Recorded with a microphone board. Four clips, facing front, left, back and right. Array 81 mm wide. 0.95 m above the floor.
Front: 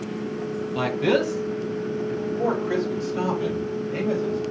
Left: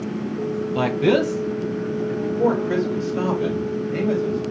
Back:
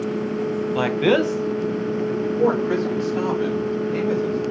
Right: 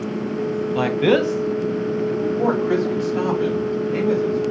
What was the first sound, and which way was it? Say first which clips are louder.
A man speaking: right 1 dB, back 3 dB; 175° right.